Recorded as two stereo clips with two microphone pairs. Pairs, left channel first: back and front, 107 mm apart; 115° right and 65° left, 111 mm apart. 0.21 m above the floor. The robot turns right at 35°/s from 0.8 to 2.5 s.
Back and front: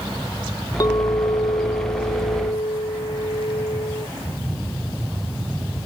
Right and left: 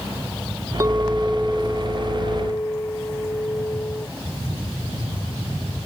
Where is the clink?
125° left; by 4.1 s 175° right.